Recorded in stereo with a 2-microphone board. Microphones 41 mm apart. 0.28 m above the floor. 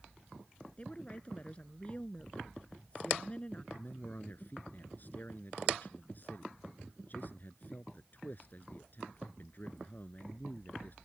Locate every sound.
0.8 s a woman speaking: 30° left (ahead or behind)
3.7 s a man speaking: 45° left (ahead or behind)